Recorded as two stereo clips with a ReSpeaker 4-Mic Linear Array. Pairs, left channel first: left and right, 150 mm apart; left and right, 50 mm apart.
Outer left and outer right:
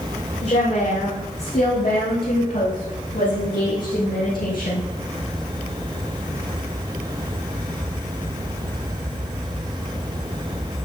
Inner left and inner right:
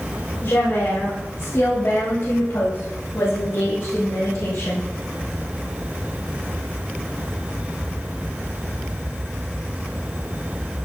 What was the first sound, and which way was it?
A woman speaking, 45° left (ahead or behind).